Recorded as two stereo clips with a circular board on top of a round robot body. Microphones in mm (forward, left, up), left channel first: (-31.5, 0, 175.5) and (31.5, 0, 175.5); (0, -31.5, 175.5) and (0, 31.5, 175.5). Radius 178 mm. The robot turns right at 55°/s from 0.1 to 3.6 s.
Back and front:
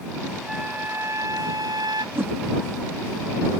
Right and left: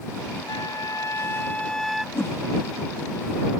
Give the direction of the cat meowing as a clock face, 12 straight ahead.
No cat meowing in this recording.